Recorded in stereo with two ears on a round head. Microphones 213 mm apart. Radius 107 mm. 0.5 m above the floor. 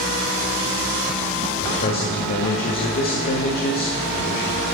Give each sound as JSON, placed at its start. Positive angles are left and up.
{"t": 1.6, "sound": "a man speaking", "side_deg": 40, "distance_m": 1.5}